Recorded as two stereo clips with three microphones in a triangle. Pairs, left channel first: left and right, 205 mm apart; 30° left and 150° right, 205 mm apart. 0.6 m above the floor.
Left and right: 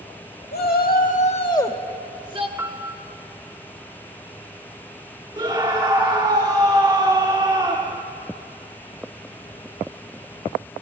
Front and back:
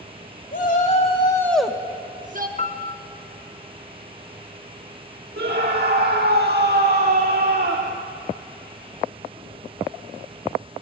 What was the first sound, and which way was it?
A shout, 65° left.